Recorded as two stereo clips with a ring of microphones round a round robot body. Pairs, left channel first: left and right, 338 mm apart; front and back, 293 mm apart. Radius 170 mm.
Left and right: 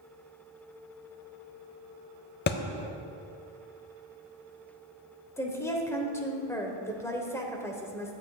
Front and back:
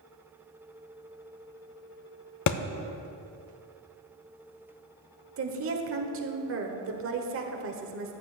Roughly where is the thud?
Ahead left.